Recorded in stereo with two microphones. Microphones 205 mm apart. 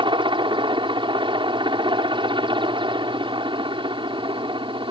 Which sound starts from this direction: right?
A helicopter, at 0.0 s.